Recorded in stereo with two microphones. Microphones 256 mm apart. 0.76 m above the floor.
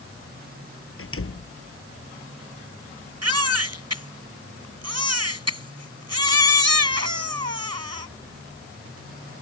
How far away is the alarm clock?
I don't hear an alarm clock.